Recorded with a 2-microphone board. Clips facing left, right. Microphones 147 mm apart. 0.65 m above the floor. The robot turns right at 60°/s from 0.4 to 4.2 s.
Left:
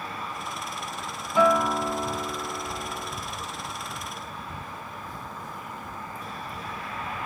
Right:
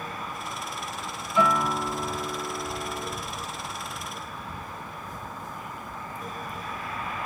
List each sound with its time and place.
1.4 s a guitar: 100° left, 1.3 m; by 3.2 s 150° right, 1.3 m